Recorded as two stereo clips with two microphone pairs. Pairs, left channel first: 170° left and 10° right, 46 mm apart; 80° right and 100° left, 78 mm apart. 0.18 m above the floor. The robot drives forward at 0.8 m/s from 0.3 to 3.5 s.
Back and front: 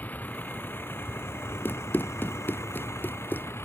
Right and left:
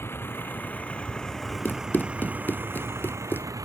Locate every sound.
0.0 s a vehicle: 135° right; by 3.7 s 145° left
1.6 s running footsteps: 145° right; by 3.5 s 140° right